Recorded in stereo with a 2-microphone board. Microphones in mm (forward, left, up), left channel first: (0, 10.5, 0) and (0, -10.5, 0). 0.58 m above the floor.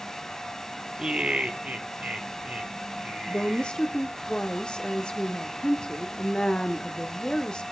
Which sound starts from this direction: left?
A woman speaking, at 3.3 s.